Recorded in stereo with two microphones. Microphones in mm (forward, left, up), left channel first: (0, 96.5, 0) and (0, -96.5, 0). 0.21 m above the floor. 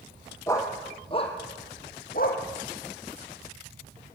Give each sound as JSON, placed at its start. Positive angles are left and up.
{"t": 0.5, "sound": "a dog barking", "side_deg": 15, "distance_m": 3.0}